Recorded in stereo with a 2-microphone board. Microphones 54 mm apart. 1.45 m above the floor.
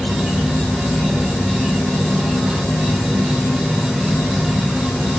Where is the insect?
5° left (ahead or behind), 3.5 m.